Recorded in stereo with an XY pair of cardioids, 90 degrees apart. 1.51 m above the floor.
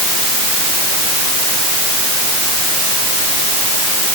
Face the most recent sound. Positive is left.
No sound to turn to.